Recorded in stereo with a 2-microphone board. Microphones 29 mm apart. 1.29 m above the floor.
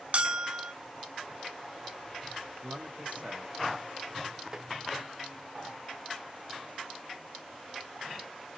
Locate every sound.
0.1 s a bell: 50° right (ahead or behind), 0.7 m
2.6 s a man speaking: 70° right (ahead or behind), 1.5 m
4.5 s tapping: 30° right (ahead or behind), 0.6 m